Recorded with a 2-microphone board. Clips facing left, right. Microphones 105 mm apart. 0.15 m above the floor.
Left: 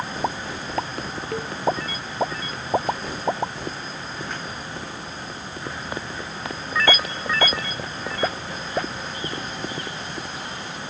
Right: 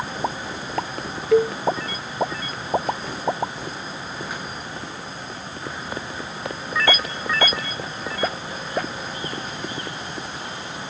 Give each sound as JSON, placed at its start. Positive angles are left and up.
{"t": 1.3, "sound": "a cowbell", "side_deg": -75}